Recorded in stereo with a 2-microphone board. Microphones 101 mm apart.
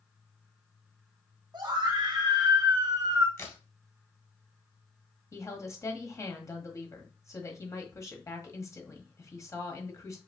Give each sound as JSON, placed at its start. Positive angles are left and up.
{"t": 1.5, "sound": "a scream", "side_deg": -45, "distance_m": 2.0}
{"t": 3.4, "sound": "a crack", "side_deg": 30, "distance_m": 1.7}
{"t": 5.3, "sound": "a woman speaking", "side_deg": 30, "distance_m": 1.4}